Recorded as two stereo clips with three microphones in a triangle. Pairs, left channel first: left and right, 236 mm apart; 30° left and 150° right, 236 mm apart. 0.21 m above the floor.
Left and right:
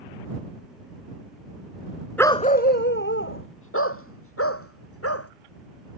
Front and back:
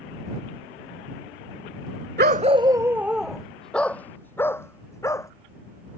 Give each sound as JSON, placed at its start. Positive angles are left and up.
{"t": 2.2, "sound": "a dog barking", "azimuth_deg": 175}